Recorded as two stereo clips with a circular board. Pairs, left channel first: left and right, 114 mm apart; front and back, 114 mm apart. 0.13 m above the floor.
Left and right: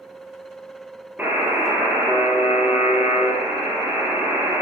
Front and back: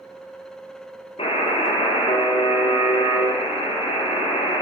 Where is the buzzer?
20° right, 2.5 m.